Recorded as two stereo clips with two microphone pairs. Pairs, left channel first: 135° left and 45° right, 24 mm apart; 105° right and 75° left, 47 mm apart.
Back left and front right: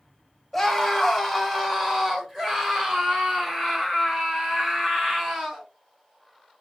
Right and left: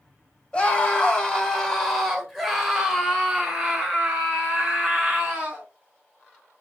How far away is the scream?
About 1.4 m.